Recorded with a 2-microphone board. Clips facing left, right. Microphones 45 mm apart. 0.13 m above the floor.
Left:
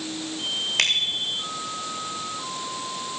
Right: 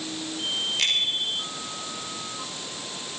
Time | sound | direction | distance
0.8 | a bicycle bell | 60° left (ahead or behind) | 9.5 m